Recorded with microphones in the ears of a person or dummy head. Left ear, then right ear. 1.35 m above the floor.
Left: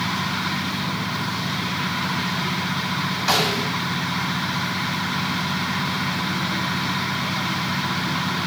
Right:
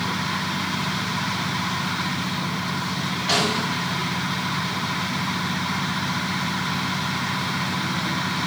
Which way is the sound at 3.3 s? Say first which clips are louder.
Left 1 dB; 60° left (ahead or behind).